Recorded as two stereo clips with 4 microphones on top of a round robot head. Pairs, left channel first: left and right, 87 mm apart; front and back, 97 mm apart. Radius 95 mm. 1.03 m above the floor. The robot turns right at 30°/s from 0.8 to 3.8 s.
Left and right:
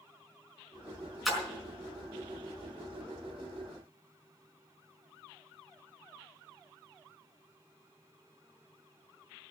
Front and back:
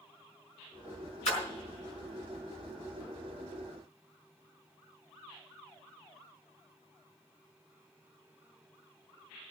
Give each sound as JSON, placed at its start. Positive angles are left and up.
{"t": 1.2, "sound": "a splash", "azimuth_deg": 0, "distance_m": 4.0}